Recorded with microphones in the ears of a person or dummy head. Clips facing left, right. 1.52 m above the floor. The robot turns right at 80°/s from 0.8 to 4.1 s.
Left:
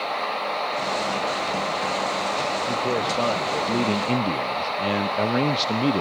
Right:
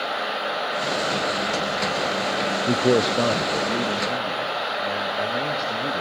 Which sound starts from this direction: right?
A man speaking, at 2.7 s.